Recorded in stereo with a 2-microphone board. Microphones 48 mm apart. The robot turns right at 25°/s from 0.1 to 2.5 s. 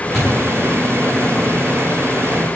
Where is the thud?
10° left (ahead or behind), 3.5 m; by 0.3 s 5° left (ahead or behind), 3.5 m.